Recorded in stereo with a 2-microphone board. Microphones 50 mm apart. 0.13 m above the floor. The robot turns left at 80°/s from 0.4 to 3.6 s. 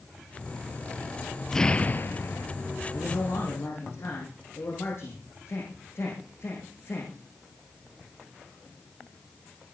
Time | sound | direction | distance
1.5 | an explosion | 170° left | 0.9 m
2.9 | a man speaking | 110° left | 7 m